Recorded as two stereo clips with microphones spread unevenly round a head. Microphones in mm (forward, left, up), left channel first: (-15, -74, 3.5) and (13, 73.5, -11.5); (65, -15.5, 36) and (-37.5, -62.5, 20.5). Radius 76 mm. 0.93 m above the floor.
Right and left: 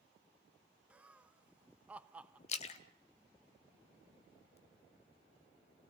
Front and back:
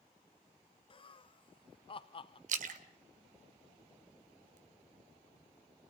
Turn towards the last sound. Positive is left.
turn(degrees=-150)